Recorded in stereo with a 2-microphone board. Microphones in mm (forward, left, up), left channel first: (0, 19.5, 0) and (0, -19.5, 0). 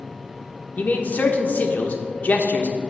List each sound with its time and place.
0.8 s a man speaking: 45° left (ahead or behind), 0.9 m